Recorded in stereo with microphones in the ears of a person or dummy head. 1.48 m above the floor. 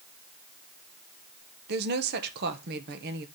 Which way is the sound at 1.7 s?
60° right (ahead or behind).